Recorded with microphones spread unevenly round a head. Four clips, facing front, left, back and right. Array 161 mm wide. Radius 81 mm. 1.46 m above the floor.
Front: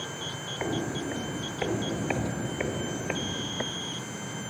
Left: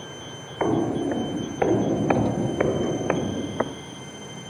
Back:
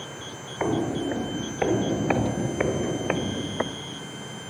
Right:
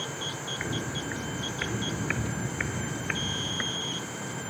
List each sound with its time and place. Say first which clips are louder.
0.6 s footsteps: left 14 dB, back 6 dB; 110° left; by 3.8 s 115° left